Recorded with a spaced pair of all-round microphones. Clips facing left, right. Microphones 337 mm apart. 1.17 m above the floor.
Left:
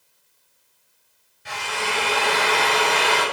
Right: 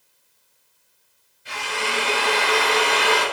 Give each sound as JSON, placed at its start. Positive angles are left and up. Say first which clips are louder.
{"t": 1.4, "sound": "a drill", "louder": "right 1 dB", "side_deg": 85, "distance_m": 4.0}